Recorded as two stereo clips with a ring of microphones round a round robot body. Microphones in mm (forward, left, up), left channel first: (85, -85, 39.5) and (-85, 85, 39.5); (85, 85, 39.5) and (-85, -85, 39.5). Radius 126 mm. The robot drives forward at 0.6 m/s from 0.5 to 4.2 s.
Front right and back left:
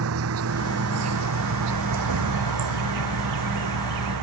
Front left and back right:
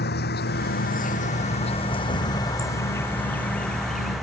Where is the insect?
100° left; by 4.2 s 135° left.